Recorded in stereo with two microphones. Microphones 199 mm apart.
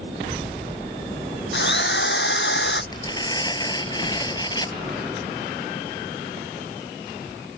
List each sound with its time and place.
1.5 s a drill: 65° left (ahead or behind)
2.9 s tearing paper: 20° left (ahead or behind)